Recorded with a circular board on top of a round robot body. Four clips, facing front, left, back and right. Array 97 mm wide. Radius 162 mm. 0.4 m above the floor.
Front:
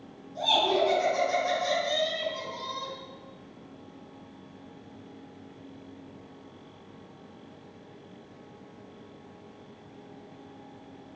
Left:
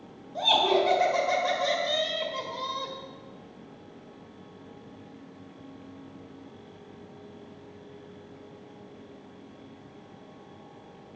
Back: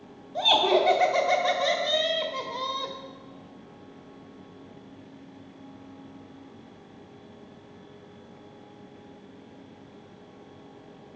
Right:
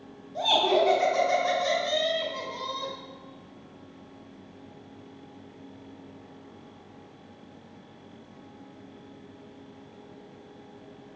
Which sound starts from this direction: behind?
Laughter, at 0.3 s.